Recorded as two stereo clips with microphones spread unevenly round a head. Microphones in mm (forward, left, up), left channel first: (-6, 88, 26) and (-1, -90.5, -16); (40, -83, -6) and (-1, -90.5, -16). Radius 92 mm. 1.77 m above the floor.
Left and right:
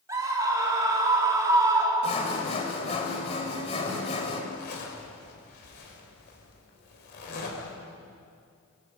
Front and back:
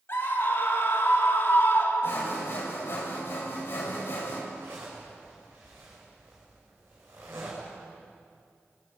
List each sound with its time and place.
0.1 s a scream: 15° right, 5 m
2.0 s sawing: 40° left, 4.5 m
4.5 s a zipper: 120° left, 6 m